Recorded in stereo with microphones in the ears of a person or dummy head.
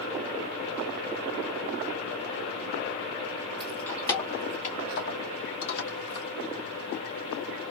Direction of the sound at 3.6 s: 10° left (ahead or behind).